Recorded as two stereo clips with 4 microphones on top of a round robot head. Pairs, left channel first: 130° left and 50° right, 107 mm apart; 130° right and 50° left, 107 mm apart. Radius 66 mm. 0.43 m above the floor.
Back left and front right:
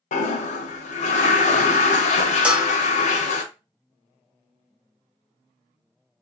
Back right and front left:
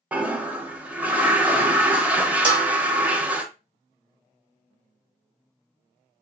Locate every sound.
0.1 s a toilet flushing: 130° left, 0.5 m
2.4 s a bell: 25° left, 0.9 m